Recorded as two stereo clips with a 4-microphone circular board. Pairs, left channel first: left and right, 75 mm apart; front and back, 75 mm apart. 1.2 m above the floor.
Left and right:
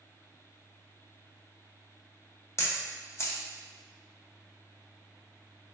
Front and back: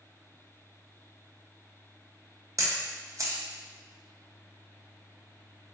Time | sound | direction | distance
2.6 | a camera shutter | 140° left | 0.7 m